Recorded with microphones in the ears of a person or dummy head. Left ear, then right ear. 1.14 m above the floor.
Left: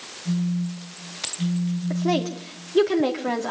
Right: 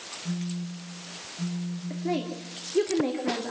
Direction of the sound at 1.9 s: 40° left (ahead or behind).